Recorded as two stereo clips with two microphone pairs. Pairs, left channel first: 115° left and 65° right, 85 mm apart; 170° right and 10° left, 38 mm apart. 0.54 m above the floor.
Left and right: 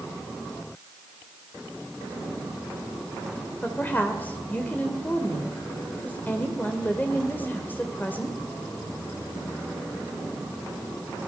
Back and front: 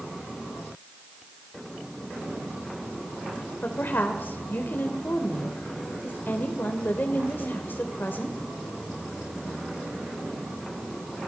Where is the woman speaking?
175° right, 2.5 m.